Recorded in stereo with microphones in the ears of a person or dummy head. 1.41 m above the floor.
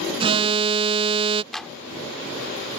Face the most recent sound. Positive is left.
turn(degrees=5)  # may be behind; listen again after turning